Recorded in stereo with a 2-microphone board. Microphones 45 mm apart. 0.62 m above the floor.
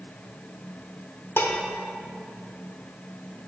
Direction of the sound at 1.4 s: 65° left (ahead or behind).